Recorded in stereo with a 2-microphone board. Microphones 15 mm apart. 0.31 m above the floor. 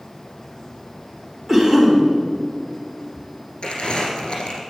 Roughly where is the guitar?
I don't hear a guitar.